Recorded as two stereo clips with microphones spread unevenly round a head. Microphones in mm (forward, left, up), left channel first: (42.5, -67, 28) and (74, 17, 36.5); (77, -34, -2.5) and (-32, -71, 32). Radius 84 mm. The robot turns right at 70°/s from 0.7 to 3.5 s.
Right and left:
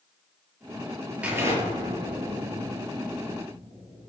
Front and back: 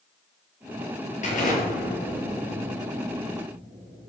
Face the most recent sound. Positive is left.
turn(degrees=155)